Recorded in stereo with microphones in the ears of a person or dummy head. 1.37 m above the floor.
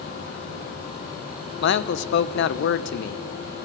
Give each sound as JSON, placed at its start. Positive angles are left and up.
{"t": 1.6, "sound": "a man speaking", "side_deg": 65, "distance_m": 1.0}